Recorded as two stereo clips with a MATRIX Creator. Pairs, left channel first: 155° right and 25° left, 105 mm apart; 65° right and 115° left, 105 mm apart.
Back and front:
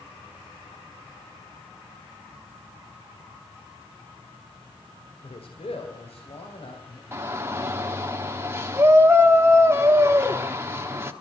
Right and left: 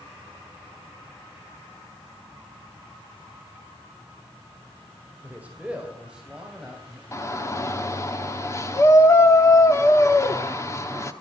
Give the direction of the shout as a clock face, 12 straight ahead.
1 o'clock.